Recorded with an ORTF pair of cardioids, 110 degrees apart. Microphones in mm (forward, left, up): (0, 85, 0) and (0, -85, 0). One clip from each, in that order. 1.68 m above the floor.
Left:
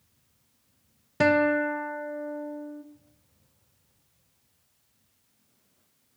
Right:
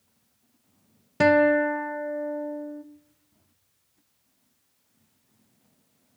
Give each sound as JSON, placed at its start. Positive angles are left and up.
{"t": 1.2, "sound": "a guitar", "azimuth_deg": -10, "distance_m": 0.6}